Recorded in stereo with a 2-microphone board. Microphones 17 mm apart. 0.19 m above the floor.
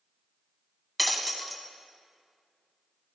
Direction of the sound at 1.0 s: 5° left (ahead or behind).